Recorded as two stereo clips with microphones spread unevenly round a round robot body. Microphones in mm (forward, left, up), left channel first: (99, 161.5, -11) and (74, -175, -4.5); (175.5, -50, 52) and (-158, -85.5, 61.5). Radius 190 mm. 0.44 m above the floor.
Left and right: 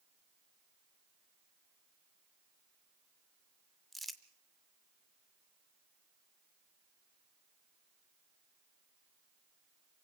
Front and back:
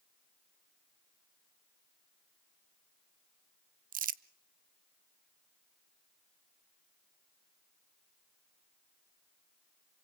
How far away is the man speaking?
No man speaking in this recording.